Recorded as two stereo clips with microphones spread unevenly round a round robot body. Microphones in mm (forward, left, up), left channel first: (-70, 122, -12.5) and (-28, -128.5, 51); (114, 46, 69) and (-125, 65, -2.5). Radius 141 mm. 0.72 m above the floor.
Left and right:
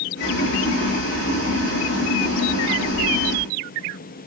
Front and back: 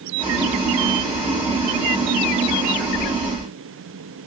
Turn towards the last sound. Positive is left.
turn(degrees=120)